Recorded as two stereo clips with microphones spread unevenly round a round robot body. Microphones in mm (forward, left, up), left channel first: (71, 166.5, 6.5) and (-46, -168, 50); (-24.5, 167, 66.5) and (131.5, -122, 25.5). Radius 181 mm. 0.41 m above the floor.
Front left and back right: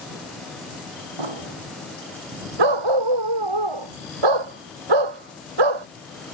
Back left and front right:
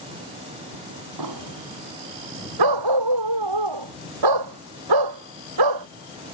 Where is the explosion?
100° right.